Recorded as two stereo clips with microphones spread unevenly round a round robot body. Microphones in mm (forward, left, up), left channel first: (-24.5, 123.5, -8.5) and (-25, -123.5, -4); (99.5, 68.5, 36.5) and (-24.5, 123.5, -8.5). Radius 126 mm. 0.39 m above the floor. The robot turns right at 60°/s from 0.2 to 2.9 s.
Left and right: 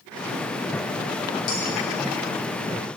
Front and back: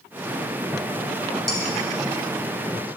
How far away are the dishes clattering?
About 3.5 m.